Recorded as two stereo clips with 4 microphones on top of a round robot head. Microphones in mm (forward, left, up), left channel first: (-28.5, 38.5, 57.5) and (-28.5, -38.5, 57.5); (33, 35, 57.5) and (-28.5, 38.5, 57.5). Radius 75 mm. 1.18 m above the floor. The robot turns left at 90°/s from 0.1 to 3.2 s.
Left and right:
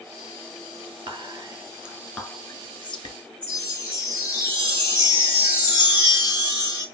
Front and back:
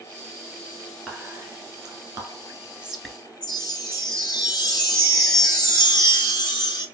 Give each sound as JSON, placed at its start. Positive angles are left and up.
{"t": 1.1, "sound": "whispering", "azimuth_deg": -105, "distance_m": 2.5}
{"t": 3.4, "sound": "a chime", "azimuth_deg": -15, "distance_m": 1.3}